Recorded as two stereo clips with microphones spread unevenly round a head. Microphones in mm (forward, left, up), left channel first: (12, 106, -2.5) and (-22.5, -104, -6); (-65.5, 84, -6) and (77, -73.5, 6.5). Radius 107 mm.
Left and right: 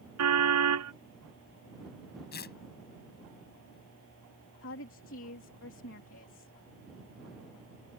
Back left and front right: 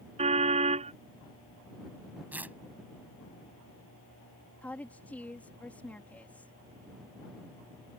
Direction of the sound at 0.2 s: 110° right.